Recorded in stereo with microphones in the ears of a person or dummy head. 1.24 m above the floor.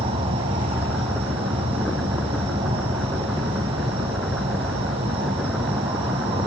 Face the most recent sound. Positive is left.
turn(degrees=-30)  # may be behind; listen again after turning